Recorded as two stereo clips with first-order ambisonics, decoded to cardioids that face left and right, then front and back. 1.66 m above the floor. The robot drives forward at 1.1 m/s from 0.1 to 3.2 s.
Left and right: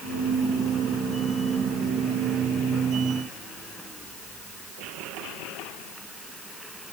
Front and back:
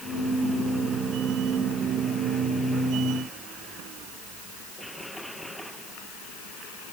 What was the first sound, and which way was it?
Only background noise.